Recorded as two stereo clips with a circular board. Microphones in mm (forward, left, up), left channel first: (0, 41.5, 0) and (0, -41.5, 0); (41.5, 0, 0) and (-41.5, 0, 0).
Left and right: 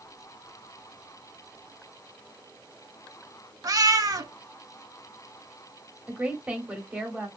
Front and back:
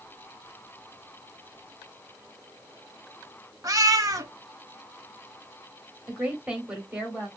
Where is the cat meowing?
135° right, 0.5 m.